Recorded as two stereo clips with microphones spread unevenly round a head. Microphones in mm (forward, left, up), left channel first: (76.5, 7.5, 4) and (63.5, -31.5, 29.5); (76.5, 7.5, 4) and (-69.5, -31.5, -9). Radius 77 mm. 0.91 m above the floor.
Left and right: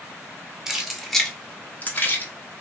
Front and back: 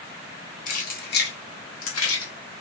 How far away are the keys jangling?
About 0.9 m.